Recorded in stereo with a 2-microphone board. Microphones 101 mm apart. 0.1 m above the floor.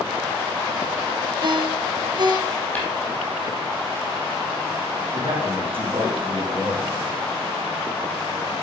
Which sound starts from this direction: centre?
Tapping, at 2.8 s.